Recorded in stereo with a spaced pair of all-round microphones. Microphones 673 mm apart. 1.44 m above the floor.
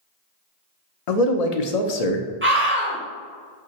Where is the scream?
20° right (ahead or behind), 1.1 m.